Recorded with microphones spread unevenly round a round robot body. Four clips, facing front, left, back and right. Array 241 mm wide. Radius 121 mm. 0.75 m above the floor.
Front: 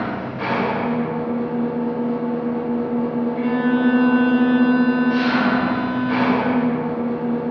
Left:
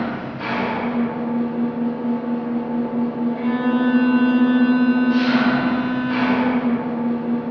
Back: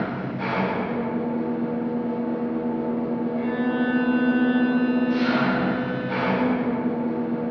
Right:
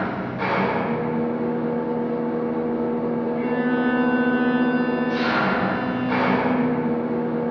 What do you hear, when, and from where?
0.0 s an engine running: 50° right, 1.8 m
3.4 s a violin: 30° left, 1.0 m